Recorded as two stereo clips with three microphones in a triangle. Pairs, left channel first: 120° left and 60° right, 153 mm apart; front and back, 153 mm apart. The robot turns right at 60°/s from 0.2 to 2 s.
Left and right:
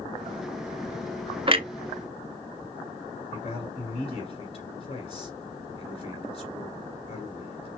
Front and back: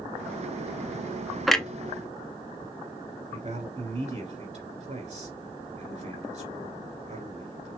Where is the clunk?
90° right, 0.5 m; by 1.7 s 80° right, 0.5 m.